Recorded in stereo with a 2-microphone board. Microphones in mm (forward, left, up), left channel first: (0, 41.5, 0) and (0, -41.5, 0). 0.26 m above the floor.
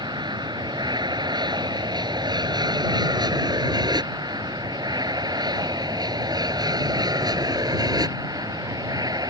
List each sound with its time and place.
0.0 s an aircraft: 60° right (ahead or behind); by 9.3 s 50° right (ahead or behind)